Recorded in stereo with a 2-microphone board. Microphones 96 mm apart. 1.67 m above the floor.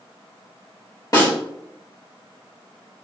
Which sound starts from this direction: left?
A snare drum, at 1.1 s.